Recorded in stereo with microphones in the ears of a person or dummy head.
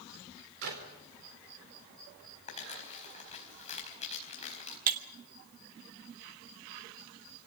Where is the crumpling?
35° left (ahead or behind), 4.5 m.